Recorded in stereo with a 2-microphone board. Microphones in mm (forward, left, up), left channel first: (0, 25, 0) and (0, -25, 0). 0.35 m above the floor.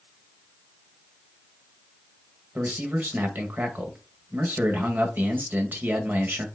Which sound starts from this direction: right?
A man speaking, at 2.5 s.